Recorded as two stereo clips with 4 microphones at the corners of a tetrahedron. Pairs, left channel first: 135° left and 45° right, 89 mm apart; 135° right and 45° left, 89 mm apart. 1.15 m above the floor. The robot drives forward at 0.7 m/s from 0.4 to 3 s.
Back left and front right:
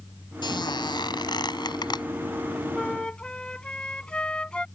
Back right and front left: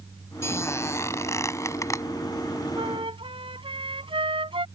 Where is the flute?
55° left.